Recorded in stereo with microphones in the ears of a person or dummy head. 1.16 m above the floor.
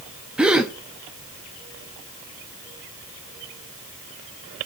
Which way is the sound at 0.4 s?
5° right (ahead or behind).